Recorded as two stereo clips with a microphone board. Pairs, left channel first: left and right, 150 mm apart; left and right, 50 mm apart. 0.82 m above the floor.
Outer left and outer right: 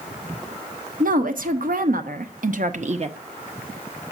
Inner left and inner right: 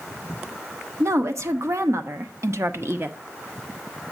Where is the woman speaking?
65° right (ahead or behind), 1.4 m; by 3.2 s 40° right (ahead or behind), 0.7 m.